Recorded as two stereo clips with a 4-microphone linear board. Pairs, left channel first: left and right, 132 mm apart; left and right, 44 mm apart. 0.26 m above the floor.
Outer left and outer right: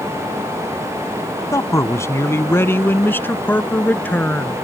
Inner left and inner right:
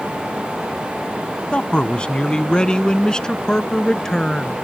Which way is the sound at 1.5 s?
25° left (ahead or behind).